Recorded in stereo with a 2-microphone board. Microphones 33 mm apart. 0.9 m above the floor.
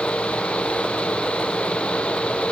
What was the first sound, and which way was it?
Only background noise.